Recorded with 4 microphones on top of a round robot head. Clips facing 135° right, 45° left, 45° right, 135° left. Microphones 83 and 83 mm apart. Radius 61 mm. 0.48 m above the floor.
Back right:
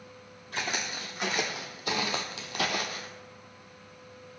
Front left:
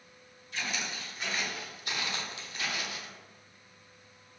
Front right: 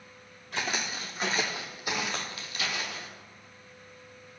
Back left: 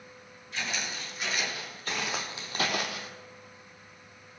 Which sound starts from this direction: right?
Footsteps, at 0.5 s.